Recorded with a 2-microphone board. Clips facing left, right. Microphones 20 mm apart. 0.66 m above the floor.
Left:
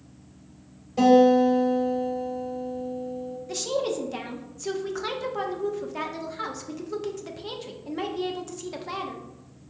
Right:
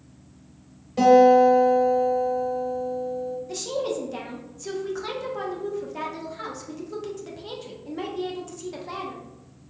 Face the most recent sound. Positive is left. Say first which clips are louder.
# left 3 dB
turn(degrees=15)  # may be behind; listen again after turning